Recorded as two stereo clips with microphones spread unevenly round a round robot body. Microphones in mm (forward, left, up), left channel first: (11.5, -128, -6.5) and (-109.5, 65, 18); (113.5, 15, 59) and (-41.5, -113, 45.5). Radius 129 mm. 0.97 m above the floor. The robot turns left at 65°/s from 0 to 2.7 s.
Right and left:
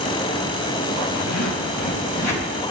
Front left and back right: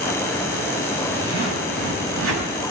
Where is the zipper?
60° right, 4.5 m; by 2.5 s 150° right, 4.5 m.